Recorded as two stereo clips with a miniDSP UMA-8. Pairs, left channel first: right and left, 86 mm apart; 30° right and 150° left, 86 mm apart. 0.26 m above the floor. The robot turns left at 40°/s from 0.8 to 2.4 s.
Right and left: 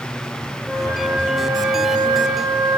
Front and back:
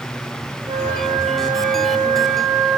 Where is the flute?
170° left, 5 m; by 2.8 s 105° left, 5 m.